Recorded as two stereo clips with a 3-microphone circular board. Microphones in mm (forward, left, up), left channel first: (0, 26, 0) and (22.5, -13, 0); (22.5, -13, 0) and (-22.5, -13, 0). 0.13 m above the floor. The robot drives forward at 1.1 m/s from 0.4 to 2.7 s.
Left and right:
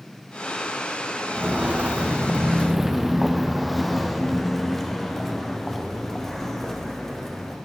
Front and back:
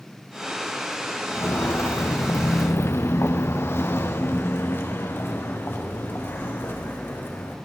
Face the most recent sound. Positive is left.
turn(degrees=35)